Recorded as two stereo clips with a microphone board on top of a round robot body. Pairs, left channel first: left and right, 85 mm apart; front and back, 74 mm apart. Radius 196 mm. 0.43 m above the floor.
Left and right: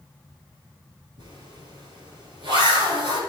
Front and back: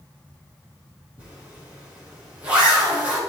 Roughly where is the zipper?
Right.